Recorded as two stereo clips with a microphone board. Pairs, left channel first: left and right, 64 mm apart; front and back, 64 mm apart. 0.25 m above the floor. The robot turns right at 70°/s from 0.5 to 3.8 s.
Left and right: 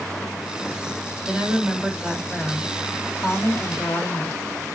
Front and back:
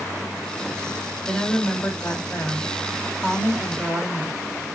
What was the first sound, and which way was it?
A woman speaking, 85° right.